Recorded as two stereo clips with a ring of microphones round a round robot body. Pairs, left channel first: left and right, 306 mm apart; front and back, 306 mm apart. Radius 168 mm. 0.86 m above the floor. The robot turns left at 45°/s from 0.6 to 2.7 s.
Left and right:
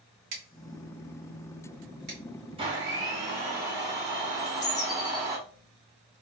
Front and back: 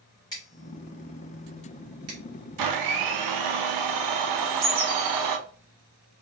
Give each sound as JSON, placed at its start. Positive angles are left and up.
{"t": 0.3, "sound": "scissors", "azimuth_deg": -75, "distance_m": 1.8}
{"t": 2.6, "sound": "a blender", "azimuth_deg": -165, "distance_m": 0.5}
{"t": 4.4, "sound": "a bird", "azimuth_deg": 145, "distance_m": 1.8}